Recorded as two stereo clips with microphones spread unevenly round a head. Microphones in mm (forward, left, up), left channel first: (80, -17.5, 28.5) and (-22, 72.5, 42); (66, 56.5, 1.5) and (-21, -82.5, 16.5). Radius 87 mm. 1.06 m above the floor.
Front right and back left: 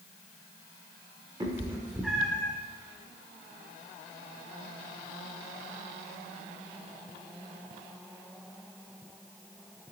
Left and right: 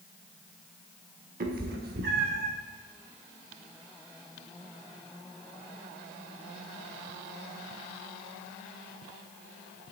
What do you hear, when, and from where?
1.4 s a cat meowing: 155° right, 1.2 m; by 2.5 s 125° right, 1.1 m